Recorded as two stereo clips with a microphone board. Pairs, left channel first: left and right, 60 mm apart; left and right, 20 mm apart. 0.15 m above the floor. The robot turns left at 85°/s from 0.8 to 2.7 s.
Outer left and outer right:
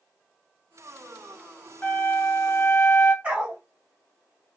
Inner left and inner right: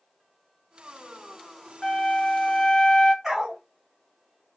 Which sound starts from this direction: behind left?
A flute, at 1.8 s.